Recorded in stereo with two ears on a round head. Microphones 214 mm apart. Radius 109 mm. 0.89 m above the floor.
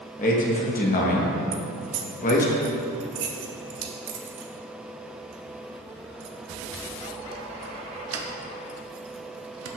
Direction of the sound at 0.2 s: 35° left (ahead or behind).